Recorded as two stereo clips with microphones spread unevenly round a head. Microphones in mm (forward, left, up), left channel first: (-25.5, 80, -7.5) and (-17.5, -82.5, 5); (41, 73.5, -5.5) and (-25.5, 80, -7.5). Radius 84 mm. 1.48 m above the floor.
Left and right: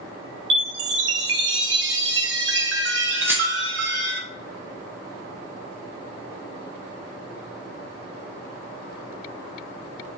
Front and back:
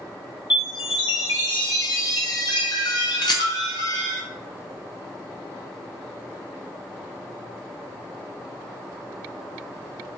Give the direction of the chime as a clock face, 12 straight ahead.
2 o'clock.